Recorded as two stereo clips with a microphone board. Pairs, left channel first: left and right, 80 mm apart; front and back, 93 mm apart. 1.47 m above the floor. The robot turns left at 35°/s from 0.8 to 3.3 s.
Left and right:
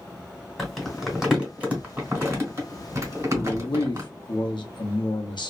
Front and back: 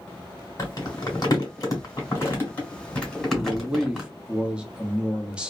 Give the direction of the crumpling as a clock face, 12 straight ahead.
12 o'clock.